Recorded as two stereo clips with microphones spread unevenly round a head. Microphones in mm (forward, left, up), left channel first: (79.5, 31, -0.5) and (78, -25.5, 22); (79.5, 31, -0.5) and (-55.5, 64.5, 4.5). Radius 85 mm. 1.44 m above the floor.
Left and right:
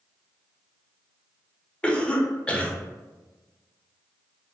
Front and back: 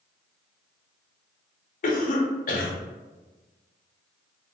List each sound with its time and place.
1.8 s a cough: 10° left, 0.8 m